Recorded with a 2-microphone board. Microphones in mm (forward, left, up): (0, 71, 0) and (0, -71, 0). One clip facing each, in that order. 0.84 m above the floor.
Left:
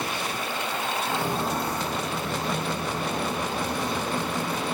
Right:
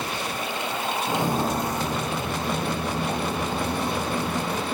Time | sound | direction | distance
1.1 | footsteps | 40° right (ahead or behind) | 3 m